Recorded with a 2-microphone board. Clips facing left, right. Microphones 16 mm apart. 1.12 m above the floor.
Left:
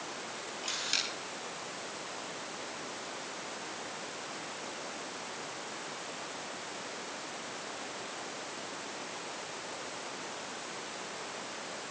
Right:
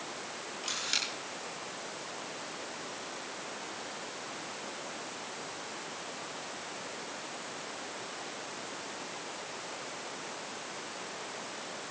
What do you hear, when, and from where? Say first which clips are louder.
0.6 s a camera shutter: even; 5° right (ahead or behind), 9.5 m